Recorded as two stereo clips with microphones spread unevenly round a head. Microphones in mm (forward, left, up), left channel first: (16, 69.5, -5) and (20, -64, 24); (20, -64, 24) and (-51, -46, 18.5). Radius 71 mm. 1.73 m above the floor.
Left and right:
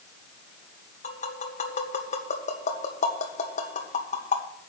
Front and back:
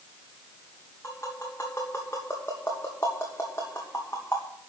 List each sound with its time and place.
1.0 s tapping: 60° left, 2.5 m